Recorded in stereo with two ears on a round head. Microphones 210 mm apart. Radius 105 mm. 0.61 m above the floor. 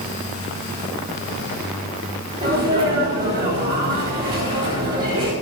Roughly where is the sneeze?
Right.